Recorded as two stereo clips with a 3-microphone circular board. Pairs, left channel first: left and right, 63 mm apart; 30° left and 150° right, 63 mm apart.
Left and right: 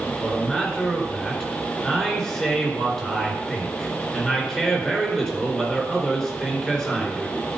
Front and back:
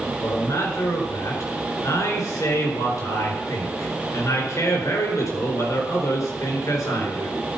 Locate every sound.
0.2 s a man speaking: 10° left, 3.5 m